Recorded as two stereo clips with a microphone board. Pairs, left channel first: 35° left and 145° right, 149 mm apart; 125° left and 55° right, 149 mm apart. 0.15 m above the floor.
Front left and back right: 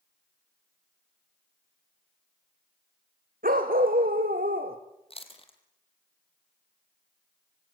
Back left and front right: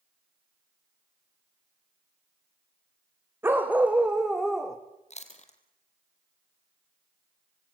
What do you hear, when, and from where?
3.4 s a dog barking: 130° right, 3 m; by 4.8 s 150° right, 2.5 m
5.1 s chewing: 85° left, 2.5 m